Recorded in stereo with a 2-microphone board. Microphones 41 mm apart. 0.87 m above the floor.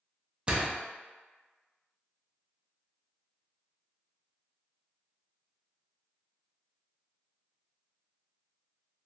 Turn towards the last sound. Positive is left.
turn(degrees=-25)  # may be behind; listen again after turning